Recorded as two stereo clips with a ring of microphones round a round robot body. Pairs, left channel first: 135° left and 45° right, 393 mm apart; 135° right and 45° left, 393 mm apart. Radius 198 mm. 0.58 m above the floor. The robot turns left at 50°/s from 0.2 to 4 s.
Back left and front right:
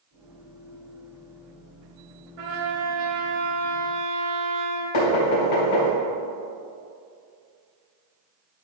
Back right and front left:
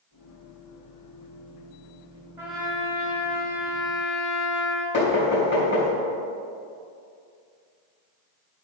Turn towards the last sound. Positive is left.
turn(degrees=165)